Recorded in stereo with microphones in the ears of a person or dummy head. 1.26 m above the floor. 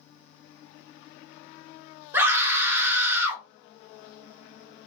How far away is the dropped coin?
No dropped coin in this recording.